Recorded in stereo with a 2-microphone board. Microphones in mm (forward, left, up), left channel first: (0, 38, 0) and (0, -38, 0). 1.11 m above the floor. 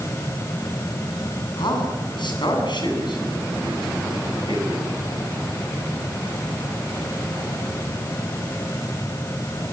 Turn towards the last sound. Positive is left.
turn(degrees=80)